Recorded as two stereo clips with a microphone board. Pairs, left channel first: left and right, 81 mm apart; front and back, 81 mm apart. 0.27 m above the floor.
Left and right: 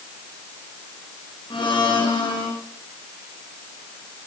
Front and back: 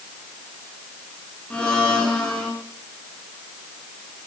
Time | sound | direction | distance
1.5 | a blender | 80° left | 5.5 m